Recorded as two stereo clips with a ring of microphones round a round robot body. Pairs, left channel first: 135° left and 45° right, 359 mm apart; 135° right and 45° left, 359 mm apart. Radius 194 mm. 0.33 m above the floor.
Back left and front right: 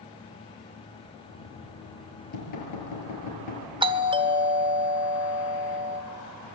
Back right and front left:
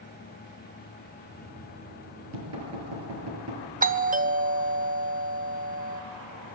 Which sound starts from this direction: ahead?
A doorbell, at 3.8 s.